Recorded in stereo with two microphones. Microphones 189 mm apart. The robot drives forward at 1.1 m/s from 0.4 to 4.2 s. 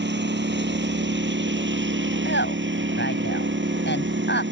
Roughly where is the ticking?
No ticking in this recording.